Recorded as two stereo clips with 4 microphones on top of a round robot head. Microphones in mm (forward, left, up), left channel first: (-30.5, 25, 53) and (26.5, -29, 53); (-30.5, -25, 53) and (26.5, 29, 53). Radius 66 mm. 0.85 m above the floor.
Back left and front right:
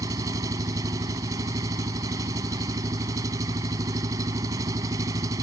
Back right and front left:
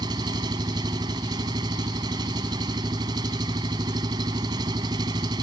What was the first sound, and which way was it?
An engine running, 5° left.